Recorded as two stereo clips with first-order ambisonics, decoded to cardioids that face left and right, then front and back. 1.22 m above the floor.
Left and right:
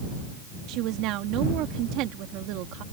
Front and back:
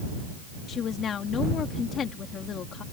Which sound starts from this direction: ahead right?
A woman speaking, at 0.7 s.